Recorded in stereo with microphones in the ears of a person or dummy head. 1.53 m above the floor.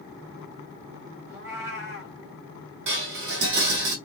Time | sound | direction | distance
1.3 | a cat meowing | 10° right (ahead or behind) | 1.7 m
2.9 | dishes clattering | 55° right (ahead or behind) | 1.8 m